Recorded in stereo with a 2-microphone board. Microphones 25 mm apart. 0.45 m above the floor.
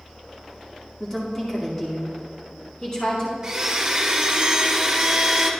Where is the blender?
25° right (ahead or behind), 1.4 m.